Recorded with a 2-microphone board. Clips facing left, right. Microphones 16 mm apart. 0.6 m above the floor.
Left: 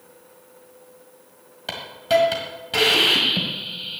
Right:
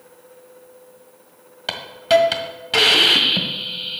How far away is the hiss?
About 1.7 m.